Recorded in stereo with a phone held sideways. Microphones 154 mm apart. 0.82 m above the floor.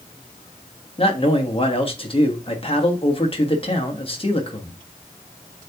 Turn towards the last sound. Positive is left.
turn(degrees=35)  # may be behind; listen again after turning